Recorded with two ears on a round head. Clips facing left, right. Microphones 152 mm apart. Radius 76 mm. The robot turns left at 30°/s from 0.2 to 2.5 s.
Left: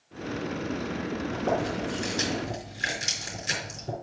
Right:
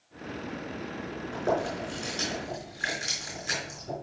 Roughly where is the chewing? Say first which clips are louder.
Right 1 dB; centre.